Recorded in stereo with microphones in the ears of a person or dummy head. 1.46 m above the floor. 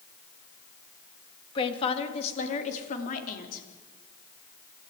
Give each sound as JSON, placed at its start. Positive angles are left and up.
{"t": 1.6, "sound": "a woman speaking", "side_deg": 30, "distance_m": 2.5}